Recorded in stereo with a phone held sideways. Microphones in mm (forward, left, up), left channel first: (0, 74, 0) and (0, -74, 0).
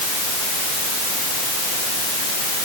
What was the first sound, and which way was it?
Only background noise.